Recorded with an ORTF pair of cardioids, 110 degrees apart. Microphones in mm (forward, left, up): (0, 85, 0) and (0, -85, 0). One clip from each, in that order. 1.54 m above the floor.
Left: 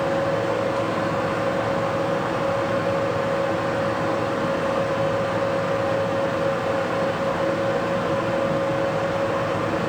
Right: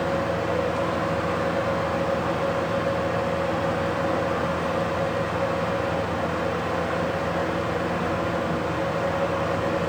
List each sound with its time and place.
0.0 s a fan: 10° left, 1.4 m